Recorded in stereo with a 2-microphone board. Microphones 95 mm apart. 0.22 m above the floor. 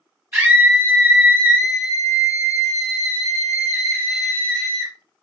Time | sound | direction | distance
0.3 | a scream | 20° right (ahead or behind) | 1.5 m